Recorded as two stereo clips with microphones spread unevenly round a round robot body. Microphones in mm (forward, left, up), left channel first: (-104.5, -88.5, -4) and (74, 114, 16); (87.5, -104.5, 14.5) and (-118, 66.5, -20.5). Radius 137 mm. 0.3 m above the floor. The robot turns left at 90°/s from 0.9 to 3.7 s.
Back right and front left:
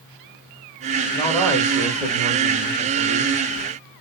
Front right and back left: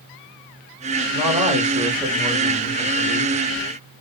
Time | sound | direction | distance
1.1 | a man speaking | 165° right | 0.9 m